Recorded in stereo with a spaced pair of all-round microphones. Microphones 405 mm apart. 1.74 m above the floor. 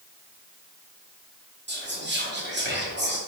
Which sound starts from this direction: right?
Whispering, at 1.7 s.